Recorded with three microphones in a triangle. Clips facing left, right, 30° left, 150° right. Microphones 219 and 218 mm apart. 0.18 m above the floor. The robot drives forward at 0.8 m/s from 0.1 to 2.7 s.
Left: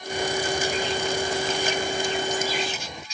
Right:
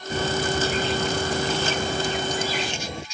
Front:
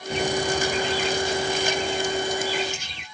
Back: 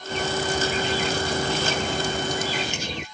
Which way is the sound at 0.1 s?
50° right.